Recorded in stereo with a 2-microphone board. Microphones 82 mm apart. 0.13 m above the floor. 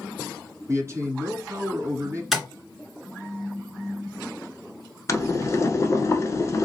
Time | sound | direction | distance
0.7 | a man speaking | 35° right (ahead or behind) | 1.4 m
2.3 | tapping | centre (ahead or behind) | 1.6 m
5.1 | boiling | 40° left (ahead or behind) | 0.9 m